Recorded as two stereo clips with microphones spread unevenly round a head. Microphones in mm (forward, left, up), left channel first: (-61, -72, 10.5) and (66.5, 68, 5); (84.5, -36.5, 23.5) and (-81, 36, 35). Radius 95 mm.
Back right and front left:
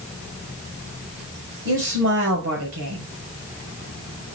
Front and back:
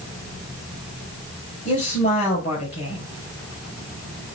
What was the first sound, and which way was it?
A woman speaking, 25° left.